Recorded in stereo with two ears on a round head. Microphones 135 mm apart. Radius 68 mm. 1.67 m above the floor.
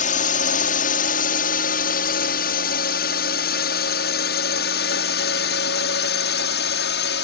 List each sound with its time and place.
0.0 s a drone: 50° left (ahead or behind); by 7.2 s 75° left (ahead or behind)